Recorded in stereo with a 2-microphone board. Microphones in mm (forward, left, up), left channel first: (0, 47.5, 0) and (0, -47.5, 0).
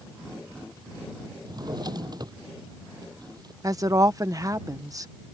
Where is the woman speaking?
35° right (ahead or behind).